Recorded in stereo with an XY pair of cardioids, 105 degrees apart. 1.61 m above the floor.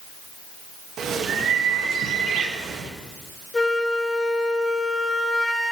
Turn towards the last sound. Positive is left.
turn(degrees=20)